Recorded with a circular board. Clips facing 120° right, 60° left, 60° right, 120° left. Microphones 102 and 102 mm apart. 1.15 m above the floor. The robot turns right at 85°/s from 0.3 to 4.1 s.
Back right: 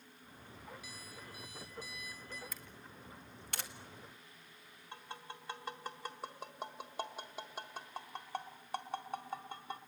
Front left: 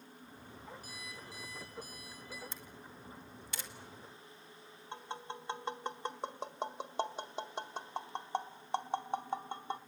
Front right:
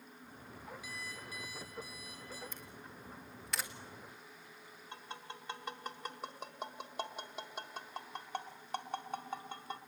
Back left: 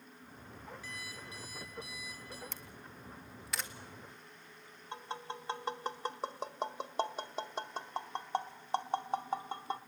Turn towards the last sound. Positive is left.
turn(degrees=95)